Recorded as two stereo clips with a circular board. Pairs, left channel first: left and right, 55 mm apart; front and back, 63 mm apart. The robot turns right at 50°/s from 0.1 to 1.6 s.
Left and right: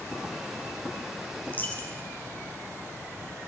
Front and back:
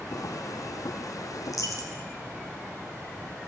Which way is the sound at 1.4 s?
25° left.